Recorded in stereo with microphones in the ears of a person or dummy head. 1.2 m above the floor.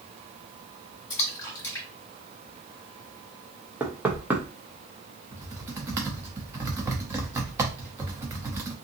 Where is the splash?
15° left (ahead or behind), 1.6 m.